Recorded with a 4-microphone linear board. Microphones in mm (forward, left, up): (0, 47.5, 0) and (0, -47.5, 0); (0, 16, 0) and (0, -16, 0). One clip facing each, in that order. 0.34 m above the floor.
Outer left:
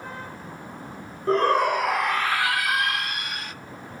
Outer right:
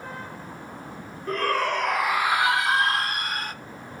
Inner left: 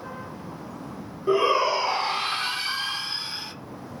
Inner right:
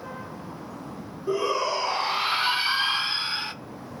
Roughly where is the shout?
Left.